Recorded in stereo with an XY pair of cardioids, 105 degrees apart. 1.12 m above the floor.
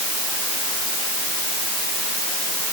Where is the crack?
No crack in this recording.